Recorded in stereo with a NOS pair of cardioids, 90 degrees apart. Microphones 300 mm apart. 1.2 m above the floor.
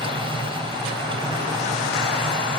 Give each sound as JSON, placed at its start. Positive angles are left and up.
{"t": 0.0, "sound": "a machine running", "azimuth_deg": -15}